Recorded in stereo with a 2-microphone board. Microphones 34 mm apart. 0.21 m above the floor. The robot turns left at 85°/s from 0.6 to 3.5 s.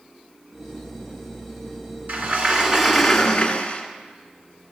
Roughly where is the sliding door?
Right.